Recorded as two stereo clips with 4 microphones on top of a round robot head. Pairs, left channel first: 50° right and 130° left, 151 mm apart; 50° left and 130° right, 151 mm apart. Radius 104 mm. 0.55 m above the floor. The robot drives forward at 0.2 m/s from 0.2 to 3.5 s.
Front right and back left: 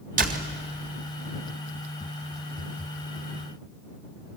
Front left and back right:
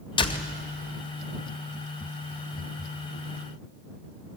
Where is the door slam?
105° left, 2 m; by 0.5 s 110° left, 2 m.